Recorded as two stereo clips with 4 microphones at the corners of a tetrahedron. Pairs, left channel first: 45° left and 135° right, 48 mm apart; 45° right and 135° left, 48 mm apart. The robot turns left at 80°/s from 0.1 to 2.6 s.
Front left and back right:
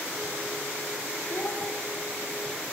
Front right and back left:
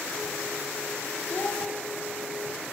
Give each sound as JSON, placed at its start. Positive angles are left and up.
{"t": 1.3, "sound": "a child speaking", "azimuth_deg": 10, "distance_m": 3.0}